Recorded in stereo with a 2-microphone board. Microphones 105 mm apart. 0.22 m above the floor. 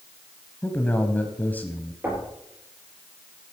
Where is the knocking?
20° right (ahead or behind), 5 m.